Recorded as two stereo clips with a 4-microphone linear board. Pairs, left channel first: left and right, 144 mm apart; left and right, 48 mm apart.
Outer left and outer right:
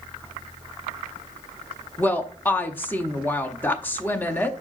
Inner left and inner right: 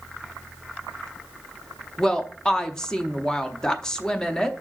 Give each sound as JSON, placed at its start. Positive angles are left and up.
{"t": 2.0, "sound": "a woman speaking", "side_deg": 15, "distance_m": 0.6}